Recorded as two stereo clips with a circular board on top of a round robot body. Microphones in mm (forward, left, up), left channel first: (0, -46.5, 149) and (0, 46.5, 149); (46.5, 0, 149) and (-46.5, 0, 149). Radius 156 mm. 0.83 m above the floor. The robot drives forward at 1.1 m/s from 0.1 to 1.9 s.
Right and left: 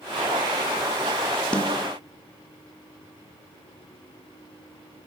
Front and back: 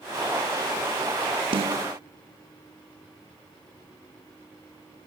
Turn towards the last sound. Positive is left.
turn(degrees=-170)